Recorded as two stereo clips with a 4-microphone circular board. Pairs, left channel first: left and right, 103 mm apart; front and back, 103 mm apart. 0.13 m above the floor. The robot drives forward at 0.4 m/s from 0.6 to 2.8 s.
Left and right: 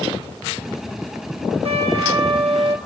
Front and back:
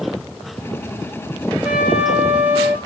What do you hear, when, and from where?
1.6 s a trumpet: 95° right, 3 m; by 2.8 s 105° right, 3 m